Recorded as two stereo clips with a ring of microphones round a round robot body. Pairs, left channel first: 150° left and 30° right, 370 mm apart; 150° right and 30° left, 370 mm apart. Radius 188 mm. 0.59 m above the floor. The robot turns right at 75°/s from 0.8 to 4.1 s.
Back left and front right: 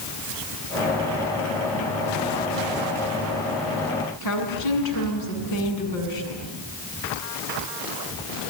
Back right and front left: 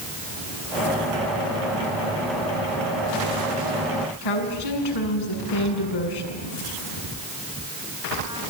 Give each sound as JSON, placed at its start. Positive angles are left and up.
{"t": 4.2, "sound": "a woman speaking", "azimuth_deg": -175, "distance_m": 7.5}